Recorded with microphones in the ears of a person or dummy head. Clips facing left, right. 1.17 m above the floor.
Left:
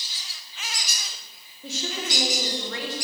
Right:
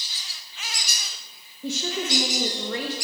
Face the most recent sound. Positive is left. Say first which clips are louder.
# right 4 dB
turn(degrees=-90)